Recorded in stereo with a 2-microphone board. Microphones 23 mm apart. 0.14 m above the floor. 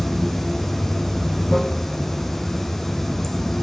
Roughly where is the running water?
Centre.